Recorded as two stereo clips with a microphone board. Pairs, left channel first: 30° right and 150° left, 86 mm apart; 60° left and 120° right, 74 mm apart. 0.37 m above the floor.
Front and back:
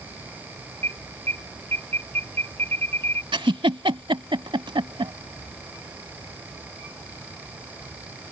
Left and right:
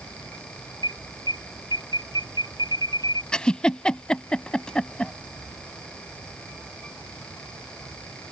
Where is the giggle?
140° left.